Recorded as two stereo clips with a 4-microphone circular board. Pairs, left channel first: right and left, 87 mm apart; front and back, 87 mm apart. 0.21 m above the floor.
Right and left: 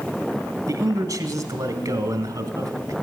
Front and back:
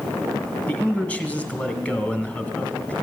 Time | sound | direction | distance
0.7 | a man speaking | 70° left | 1.4 m